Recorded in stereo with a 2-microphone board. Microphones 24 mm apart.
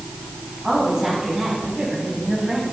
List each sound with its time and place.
0.6 s a woman speaking: 35° right (ahead or behind), 5.5 m